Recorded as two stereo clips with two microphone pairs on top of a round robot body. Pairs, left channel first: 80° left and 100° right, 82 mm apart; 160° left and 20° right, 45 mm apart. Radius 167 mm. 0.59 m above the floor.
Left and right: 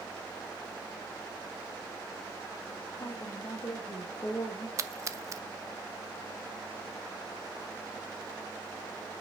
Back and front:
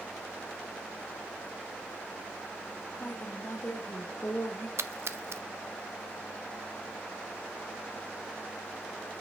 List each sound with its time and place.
3.0 s a woman speaking: 125° left, 3 m
4.8 s a splash: 45° right, 0.6 m